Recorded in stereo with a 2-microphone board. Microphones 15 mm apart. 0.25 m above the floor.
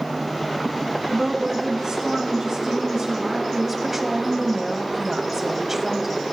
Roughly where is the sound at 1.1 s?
Right.